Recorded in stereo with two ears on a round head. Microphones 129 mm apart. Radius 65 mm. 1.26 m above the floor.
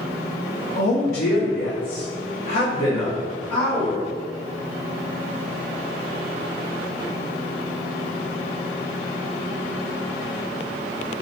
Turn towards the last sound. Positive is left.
turn(degrees=15)  # may be behind; listen again after turning